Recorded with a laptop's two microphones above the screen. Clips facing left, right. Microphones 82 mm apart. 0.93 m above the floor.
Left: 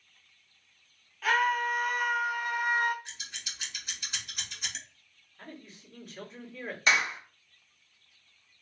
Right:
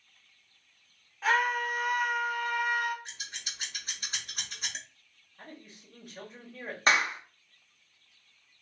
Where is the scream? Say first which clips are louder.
Left 1 dB; 25° right (ahead or behind), 1.1 m; by 3.0 s 40° left (ahead or behind), 0.7 m.